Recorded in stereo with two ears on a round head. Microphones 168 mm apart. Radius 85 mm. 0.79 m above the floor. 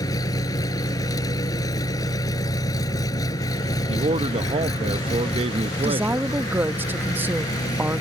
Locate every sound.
0.0 s an engine running: 20° left (ahead or behind)
3.9 s a man speaking: 30° right (ahead or behind)
5.8 s a woman speaking: 10° right (ahead or behind)